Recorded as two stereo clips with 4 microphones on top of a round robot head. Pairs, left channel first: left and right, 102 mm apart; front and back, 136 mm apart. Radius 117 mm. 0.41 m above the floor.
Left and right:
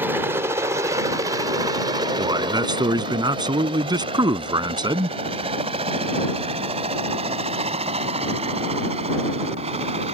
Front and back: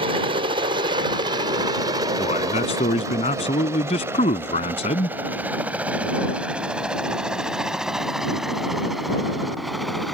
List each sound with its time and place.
0.0 s a helicopter: 155° right; by 10.2 s 90° right
2.2 s a man speaking: 45° right